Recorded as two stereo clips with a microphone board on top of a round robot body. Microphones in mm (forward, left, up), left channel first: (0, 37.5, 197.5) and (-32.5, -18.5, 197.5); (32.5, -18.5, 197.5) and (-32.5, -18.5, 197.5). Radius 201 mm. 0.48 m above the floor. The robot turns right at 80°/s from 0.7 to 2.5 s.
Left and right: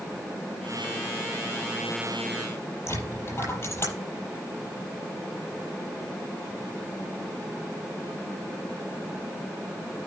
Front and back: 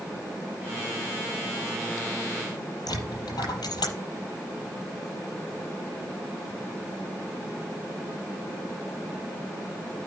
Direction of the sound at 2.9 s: 10° left.